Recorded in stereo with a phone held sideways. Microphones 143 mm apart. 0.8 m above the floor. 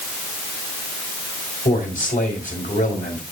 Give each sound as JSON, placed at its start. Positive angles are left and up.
{"t": 1.6, "sound": "a man speaking", "side_deg": 75, "distance_m": 4.0}